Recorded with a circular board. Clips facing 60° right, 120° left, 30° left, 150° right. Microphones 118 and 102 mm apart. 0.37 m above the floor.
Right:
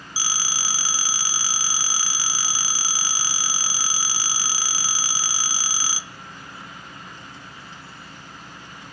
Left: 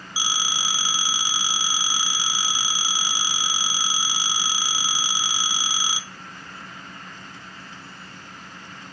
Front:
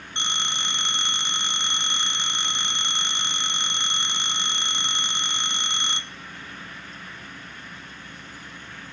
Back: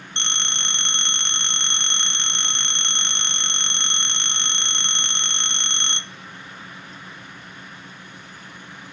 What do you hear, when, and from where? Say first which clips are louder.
0.2 s a phone ringing: left 2 dB, front 1 dB; 95° left, 0.6 m